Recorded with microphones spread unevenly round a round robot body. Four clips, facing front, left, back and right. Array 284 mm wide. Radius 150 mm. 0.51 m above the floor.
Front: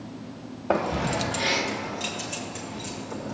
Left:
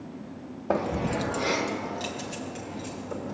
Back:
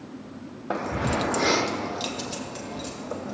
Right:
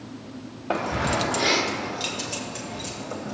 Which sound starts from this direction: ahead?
Keys jangling, at 0.7 s.